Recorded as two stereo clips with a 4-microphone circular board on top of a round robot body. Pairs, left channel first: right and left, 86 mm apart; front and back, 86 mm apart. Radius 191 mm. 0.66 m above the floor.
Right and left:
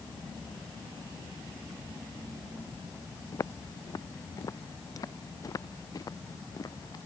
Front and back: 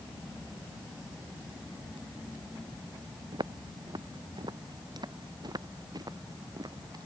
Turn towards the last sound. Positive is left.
turn(degrees=-135)